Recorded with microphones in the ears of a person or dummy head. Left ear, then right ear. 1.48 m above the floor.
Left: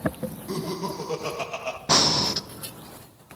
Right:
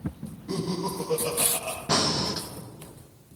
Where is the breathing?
30° left (ahead or behind), 0.6 m.